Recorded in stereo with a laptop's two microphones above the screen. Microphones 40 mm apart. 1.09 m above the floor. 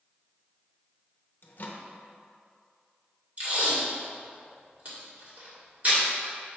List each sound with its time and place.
1.4 s a microwave: 45° left (ahead or behind), 0.8 m
3.4 s tape being pulled: 45° right (ahead or behind), 2.0 m